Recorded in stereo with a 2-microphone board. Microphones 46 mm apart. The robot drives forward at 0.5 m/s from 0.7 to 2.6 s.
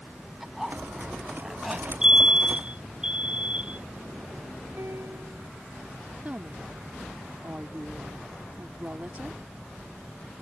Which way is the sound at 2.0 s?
20° right (ahead or behind).